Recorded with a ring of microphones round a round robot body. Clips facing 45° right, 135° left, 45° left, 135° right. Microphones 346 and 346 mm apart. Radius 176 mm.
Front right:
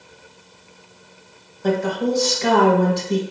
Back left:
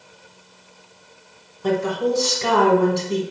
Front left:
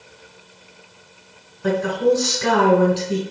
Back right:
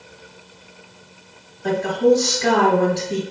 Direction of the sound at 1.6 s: 65° left.